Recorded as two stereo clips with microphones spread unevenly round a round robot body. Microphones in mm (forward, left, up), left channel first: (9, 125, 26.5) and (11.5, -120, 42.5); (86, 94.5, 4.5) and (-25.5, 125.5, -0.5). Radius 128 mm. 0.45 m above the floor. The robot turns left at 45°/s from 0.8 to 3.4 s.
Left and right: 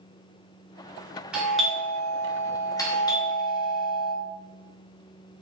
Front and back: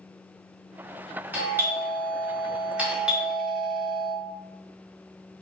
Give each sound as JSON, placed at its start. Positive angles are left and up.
{"t": 1.3, "sound": "a doorbell", "azimuth_deg": 180, "distance_m": 1.2}